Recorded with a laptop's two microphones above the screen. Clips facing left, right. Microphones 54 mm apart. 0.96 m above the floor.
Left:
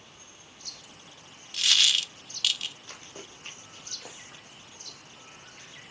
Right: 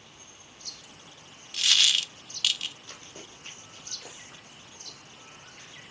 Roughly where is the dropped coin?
Centre.